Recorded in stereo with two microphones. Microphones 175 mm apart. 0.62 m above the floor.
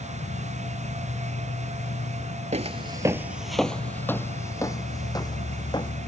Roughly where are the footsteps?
Right.